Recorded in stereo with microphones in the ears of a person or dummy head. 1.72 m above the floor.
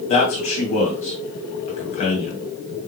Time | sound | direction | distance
0.1 | a man speaking | 35° left (ahead or behind) | 2 m